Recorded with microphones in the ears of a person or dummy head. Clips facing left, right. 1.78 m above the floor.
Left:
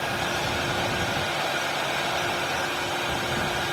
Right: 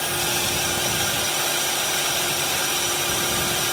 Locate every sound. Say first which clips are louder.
0.0 s a drone: right 1 dB; 65° right (ahead or behind)